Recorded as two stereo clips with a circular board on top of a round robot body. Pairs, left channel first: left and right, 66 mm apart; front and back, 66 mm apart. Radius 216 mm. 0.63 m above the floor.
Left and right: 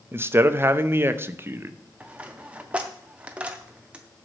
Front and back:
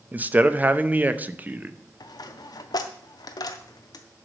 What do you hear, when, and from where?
0.1 s a man speaking: 125° right, 1.0 m
2.0 s a dropped coin: 15° right, 0.5 m